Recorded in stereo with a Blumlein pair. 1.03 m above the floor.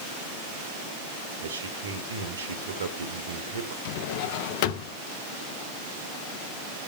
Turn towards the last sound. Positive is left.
turn(degrees=50)